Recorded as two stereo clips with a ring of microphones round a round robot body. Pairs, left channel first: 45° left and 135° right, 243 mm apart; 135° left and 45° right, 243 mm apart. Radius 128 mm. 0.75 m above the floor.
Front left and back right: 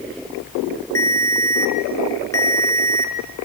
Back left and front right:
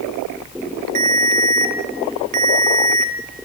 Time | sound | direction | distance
0.9 | a ringtone | 35° right | 1.9 m